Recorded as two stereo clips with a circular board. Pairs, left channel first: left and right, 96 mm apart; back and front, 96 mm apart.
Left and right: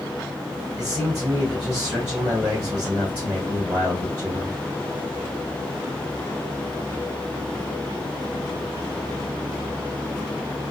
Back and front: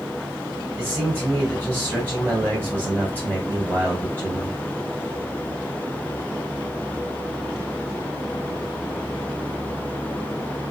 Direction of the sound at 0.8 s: 35° right.